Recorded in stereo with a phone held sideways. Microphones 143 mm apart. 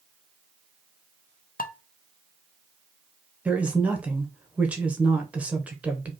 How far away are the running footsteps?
I don't hear running footsteps.